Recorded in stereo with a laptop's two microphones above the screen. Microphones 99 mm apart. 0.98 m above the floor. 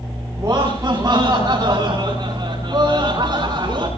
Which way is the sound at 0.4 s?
30° right (ahead or behind).